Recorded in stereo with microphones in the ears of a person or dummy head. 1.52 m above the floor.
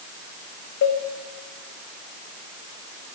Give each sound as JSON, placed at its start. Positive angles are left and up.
{"t": 0.8, "sound": "a cowbell", "side_deg": 55, "distance_m": 1.3}